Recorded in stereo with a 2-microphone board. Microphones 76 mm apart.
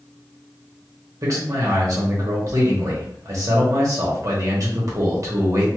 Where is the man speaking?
50° right (ahead or behind), 1.0 m.